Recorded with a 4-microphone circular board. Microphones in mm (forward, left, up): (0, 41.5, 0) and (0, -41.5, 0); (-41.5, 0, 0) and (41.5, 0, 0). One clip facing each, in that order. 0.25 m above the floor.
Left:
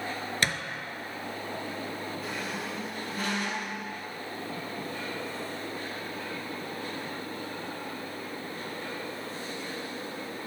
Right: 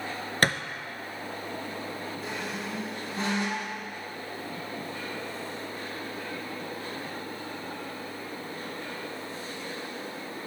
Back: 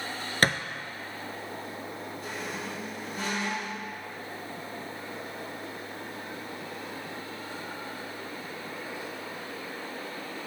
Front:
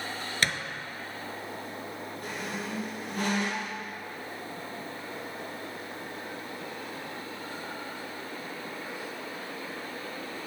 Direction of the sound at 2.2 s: 25° right.